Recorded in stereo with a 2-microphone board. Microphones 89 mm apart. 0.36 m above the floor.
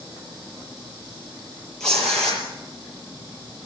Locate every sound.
1.8 s tearing paper: 5° left (ahead or behind), 7 m